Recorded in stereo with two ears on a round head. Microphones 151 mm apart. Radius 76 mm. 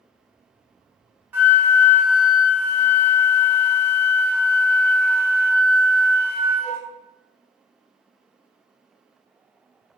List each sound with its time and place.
1.3 s a flute: 10° right (ahead or behind), 1.0 m